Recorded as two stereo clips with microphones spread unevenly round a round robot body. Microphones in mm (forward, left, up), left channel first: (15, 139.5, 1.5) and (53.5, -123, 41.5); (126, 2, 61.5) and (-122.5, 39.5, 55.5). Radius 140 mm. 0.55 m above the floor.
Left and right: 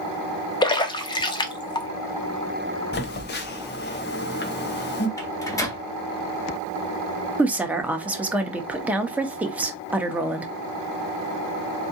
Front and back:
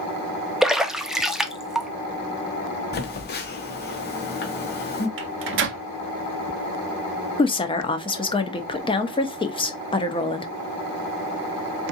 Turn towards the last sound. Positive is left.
turn(degrees=20)